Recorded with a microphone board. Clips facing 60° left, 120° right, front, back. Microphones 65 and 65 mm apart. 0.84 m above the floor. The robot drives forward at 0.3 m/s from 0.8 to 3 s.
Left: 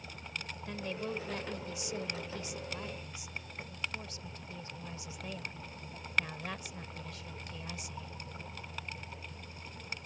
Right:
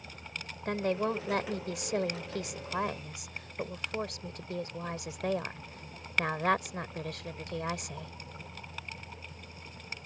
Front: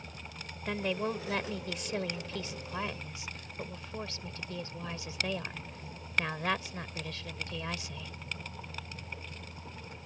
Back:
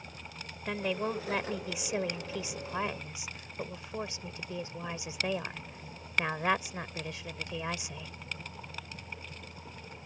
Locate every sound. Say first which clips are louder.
0.7 s a woman speaking: right 10 dB, even; 95° right; by 8.1 s 110° right